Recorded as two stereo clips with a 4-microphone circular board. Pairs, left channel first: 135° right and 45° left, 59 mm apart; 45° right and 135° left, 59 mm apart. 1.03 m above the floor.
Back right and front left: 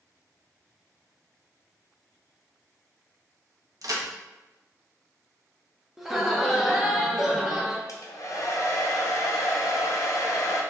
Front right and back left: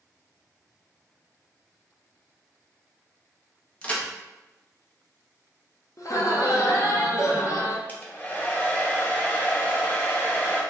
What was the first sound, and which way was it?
A crack, 25° left.